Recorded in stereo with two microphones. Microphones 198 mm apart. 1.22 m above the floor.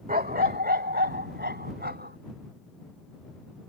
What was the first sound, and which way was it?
A dog barking, 50° right (ahead or behind).